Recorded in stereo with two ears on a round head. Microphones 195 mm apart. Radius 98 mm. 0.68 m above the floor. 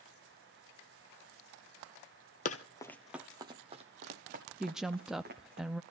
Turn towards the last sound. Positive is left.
turn(degrees=0)  # may be behind; listen again after turning